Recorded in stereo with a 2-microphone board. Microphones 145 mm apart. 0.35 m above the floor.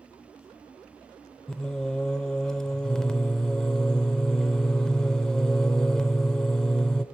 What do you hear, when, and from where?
1.5 s singing: 5° left (ahead or behind), 0.7 m